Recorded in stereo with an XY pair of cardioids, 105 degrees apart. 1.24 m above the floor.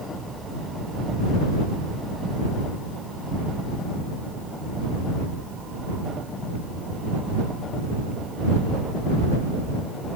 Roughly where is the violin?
I don't hear a violin.